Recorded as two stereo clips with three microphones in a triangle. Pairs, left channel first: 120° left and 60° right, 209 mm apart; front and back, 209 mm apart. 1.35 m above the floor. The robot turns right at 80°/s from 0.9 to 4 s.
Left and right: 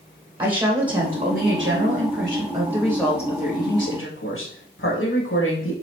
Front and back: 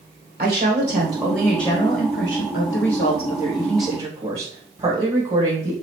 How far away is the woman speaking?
About 1.3 m.